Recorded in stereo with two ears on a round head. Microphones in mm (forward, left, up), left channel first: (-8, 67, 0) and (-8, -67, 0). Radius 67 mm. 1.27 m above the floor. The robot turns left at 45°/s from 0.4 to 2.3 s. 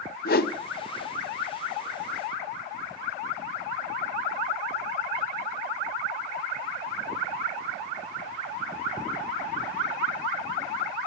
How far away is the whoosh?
About 0.6 m.